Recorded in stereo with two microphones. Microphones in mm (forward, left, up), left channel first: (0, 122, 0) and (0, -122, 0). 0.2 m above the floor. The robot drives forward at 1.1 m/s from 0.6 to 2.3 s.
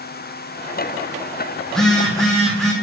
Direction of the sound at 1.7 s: 5° left (ahead or behind).